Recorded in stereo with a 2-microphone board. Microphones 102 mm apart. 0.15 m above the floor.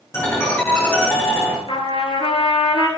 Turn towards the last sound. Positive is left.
turn(degrees=60)  # may be behind; listen again after turning